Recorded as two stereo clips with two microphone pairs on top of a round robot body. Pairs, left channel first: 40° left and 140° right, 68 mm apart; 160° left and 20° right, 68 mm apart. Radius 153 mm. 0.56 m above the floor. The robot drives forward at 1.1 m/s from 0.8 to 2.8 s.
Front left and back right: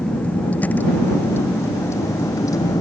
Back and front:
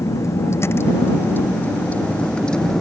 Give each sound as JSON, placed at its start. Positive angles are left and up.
{"t": 0.0, "sound": "a vehicle", "azimuth_deg": 115}